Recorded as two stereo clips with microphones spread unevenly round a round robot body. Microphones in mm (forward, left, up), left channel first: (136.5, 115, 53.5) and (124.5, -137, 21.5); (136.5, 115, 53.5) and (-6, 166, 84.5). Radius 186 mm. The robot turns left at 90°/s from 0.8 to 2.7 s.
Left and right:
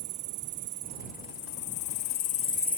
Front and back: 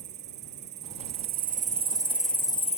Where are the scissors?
No scissors in this recording.